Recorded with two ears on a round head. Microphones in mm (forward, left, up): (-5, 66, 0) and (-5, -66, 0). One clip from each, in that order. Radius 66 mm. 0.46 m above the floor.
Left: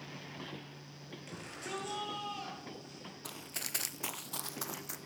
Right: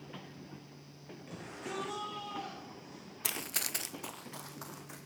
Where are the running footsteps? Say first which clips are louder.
Right 7 dB; 55° right (ahead or behind), 0.8 m; by 5.0 s 65° left (ahead or behind), 2.0 m.